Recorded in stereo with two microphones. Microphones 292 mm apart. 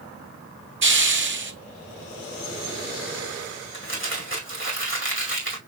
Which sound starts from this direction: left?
Crumpling, at 3.7 s.